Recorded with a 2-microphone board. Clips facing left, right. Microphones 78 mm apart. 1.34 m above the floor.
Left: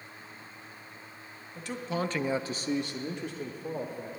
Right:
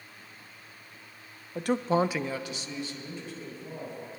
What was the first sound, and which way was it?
A man speaking, 65° right (ahead or behind).